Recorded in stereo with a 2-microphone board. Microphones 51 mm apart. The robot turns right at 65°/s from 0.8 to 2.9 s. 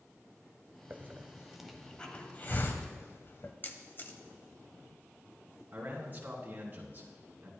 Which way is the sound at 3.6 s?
40° left (ahead or behind).